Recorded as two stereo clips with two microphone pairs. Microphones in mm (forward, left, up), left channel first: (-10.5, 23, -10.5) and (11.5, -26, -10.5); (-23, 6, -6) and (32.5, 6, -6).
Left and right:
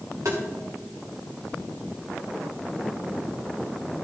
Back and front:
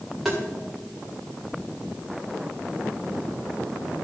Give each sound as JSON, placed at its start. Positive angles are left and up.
{"t": 0.2, "sound": "tapping", "azimuth_deg": -90, "distance_m": 2.5}